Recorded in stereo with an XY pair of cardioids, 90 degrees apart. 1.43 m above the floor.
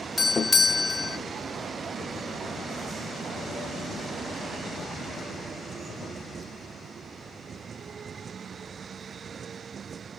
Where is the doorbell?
35° left, 0.5 m.